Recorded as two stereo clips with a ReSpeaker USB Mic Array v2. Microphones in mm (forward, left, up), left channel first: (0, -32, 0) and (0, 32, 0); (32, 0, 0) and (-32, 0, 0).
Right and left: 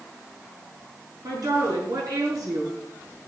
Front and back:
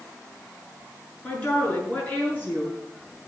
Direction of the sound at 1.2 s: 70° left.